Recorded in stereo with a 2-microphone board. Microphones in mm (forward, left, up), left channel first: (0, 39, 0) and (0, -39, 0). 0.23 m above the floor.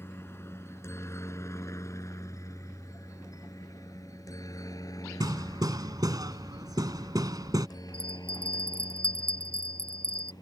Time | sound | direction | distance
0.0 | a helicopter | 30° left (ahead or behind) | ?
5.2 | hammering | 55° right (ahead or behind) | ?
7.9 | a bell | 40° right (ahead or behind) | ?